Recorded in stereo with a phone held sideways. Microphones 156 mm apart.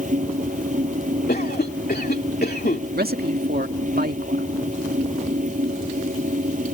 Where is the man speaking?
85° right.